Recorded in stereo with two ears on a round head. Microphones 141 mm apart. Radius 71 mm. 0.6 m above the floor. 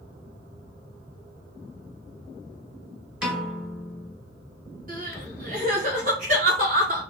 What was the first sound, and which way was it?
A piano, 5° right (ahead or behind).